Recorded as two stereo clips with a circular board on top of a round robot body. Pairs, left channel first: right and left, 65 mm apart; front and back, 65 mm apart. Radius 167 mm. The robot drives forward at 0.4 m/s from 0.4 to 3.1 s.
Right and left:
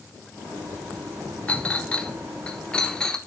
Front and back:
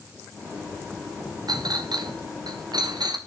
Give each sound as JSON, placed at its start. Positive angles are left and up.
{"t": 1.5, "sound": "a clink", "azimuth_deg": -160, "distance_m": 0.8}